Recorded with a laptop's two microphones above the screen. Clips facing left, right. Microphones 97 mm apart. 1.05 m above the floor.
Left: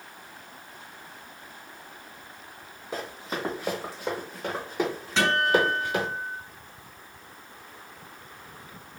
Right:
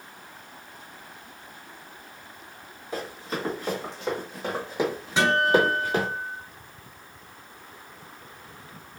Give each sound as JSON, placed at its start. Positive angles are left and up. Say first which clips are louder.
{"t": 2.9, "sound": "running footsteps", "louder": "right 1 dB", "side_deg": 25, "distance_m": 1.9}
{"t": 5.2, "sound": "a guitar", "louder": "right 2 dB", "side_deg": -10, "distance_m": 2.0}